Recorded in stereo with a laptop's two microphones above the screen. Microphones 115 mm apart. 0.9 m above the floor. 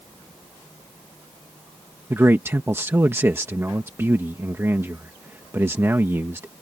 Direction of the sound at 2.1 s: 20° right (ahead or behind).